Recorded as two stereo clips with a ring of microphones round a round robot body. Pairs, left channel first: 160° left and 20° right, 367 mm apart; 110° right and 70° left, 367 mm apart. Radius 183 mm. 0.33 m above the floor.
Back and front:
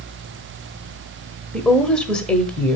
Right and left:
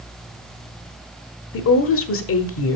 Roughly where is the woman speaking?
Behind right.